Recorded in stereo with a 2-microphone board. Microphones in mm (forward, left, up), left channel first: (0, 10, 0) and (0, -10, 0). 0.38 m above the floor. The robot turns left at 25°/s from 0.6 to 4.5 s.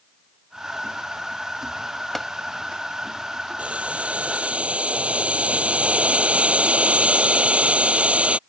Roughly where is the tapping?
Centre.